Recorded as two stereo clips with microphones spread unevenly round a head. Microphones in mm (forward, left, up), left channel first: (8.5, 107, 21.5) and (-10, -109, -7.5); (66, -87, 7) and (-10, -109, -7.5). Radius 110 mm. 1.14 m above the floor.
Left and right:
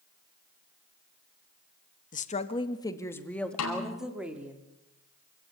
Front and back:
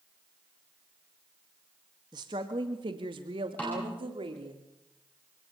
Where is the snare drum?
100° left, 5.5 m.